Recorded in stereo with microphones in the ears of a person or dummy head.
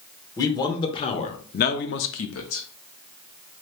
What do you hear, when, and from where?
0.4 s a man speaking: 20° left (ahead or behind), 1.2 m; by 2.6 s 65° left (ahead or behind), 0.7 m